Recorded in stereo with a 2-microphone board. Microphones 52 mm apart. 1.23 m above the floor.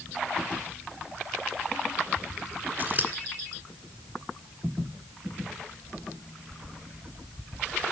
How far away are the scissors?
About 2.5 m.